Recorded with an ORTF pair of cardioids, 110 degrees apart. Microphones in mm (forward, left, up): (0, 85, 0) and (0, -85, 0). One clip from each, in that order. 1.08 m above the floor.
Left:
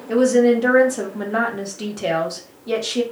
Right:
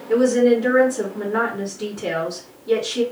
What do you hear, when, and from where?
0.1 s a woman speaking: 60° left, 1.3 m